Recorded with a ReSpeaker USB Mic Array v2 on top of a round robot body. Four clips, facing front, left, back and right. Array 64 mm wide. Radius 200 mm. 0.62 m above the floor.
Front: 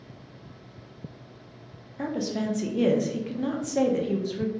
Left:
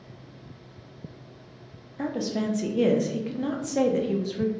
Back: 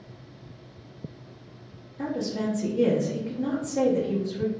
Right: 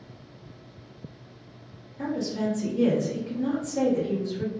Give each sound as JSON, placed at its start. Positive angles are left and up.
{"t": 2.0, "sound": "a woman speaking", "azimuth_deg": 50, "distance_m": 0.8}